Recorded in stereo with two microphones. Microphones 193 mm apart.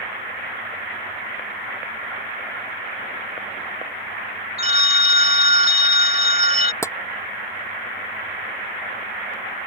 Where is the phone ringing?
35° right (ahead or behind).